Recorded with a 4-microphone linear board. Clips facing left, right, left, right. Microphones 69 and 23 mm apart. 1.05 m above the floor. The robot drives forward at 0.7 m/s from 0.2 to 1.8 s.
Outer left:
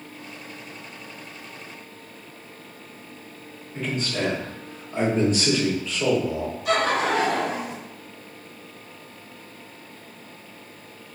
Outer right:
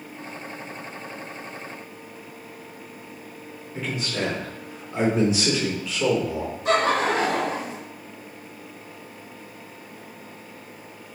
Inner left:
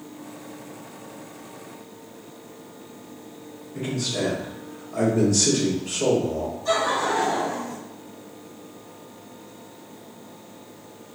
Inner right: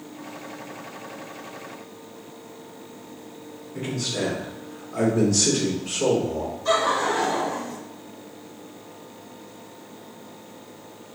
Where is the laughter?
35° right (ahead or behind), 1.2 m.